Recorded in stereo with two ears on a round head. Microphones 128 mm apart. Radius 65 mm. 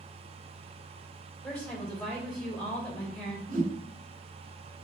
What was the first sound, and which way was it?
A woman speaking, centre (ahead or behind).